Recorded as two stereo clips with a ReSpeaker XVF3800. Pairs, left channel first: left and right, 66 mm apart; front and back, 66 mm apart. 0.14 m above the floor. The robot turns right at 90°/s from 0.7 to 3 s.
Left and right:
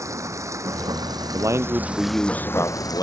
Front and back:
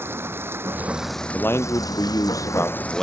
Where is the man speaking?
65° right; by 3.0 s 85° left.